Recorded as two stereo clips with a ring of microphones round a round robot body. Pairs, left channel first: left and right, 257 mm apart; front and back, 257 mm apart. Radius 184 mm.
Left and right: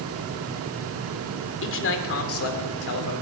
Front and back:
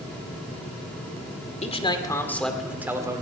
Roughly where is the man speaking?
Ahead left.